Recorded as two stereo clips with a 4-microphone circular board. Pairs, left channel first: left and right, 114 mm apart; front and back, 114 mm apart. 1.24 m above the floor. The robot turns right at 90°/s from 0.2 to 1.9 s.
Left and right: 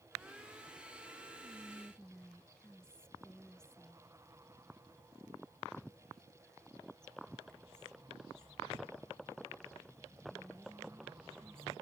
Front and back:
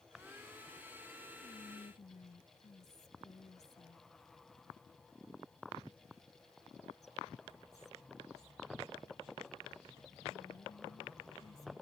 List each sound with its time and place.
1.4 s whispering: 35° right; by 11.7 s 5° left